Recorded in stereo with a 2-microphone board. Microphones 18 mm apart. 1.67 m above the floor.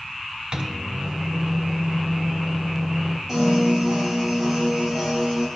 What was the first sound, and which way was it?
A microwave, 55° right (ahead or behind).